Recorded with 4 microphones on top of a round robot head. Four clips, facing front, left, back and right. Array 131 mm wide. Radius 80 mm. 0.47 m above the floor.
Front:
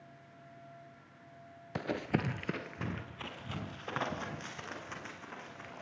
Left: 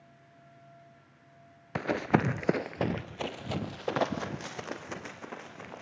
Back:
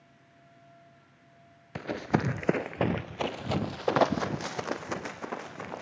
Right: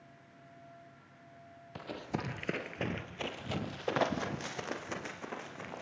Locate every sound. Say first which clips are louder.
1.8 s running footsteps: left 12 dB, back 5 dB; 80° left, 0.6 m; by 5.8 s 175° right, 2.5 m